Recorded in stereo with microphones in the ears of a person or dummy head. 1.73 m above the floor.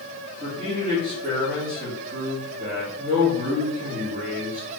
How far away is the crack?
No crack in this recording.